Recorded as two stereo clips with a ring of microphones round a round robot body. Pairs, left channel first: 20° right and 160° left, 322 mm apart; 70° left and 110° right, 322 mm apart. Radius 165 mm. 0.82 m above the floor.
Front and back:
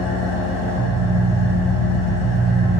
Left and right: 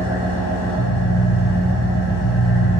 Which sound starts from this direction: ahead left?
An engine running, at 0.0 s.